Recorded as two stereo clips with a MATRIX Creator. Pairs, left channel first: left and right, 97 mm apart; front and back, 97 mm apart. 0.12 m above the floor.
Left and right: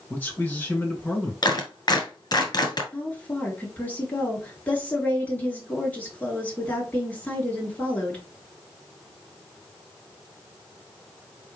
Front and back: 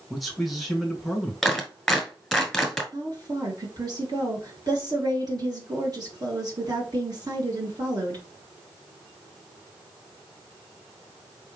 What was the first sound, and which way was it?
A man speaking, 90° left.